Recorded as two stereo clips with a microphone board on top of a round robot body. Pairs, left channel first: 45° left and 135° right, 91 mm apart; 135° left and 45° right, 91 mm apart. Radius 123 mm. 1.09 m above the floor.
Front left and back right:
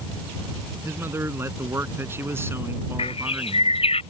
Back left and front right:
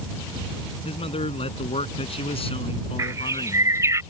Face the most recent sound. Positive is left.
turn(degrees=15)